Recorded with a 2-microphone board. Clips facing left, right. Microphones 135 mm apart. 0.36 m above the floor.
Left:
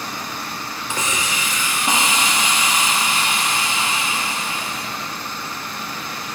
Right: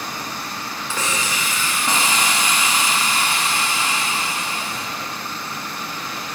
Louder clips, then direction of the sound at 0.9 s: Even; 20° left (ahead or behind).